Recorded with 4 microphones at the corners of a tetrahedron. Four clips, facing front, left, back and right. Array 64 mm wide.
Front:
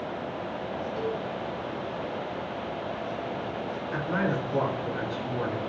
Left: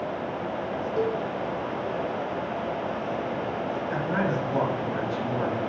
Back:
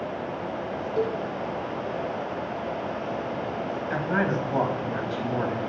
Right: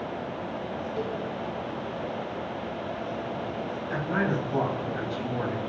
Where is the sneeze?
No sneeze in this recording.